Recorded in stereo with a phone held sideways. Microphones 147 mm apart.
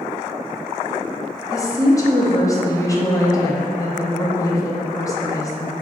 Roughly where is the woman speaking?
Left.